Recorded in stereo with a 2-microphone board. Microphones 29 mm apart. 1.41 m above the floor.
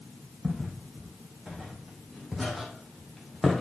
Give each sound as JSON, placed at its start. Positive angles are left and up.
{"t": 0.4, "sound": "footsteps", "side_deg": -15, "distance_m": 3.5}